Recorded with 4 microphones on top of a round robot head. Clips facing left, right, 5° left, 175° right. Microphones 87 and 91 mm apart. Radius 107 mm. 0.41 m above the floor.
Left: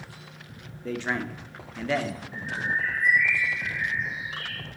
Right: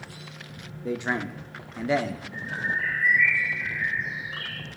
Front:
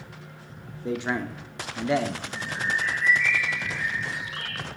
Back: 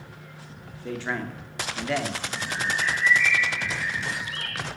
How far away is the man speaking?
About 0.9 m.